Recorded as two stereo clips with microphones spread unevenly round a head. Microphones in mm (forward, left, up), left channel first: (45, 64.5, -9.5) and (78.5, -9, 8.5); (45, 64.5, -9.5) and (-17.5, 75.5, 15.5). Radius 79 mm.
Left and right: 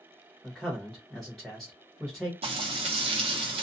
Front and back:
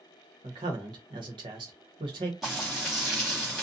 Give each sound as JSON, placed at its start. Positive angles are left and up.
{"t": 0.4, "sound": "a man speaking", "azimuth_deg": -160, "distance_m": 0.9}
{"t": 2.4, "sound": "frying", "azimuth_deg": -95, "distance_m": 0.6}